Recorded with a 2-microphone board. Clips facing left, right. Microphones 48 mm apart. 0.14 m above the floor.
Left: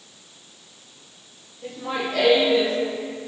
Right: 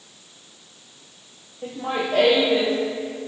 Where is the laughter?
45° right (ahead or behind), 4.5 m.